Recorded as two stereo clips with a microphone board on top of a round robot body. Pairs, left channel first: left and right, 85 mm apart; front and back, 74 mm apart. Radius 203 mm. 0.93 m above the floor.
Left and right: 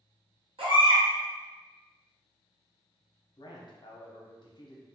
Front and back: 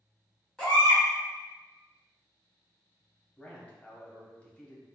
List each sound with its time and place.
0.6 s a baby crying: 85° right, 1.3 m
3.4 s a man speaking: 70° left, 0.9 m